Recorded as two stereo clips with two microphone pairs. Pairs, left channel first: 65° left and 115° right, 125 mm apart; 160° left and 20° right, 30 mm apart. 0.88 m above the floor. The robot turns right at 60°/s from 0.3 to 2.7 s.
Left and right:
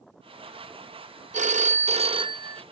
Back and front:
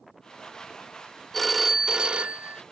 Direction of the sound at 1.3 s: 120° right.